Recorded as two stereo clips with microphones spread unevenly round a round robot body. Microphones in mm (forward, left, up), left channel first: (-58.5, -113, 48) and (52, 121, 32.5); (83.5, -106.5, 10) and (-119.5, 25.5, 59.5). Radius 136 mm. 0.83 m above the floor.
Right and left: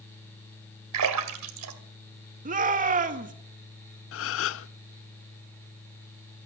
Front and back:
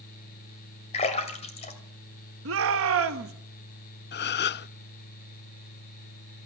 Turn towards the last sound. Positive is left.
turn(degrees=-75)